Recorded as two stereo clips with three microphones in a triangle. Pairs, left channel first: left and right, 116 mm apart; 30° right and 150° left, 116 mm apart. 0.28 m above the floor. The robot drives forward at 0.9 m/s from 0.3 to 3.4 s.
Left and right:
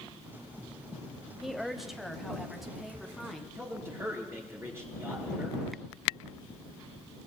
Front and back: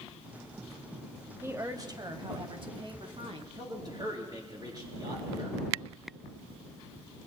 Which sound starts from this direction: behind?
A woman speaking, at 1.4 s.